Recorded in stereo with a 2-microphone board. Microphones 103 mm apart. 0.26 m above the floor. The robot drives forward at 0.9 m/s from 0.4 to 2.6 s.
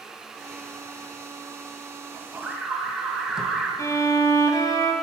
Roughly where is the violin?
Left.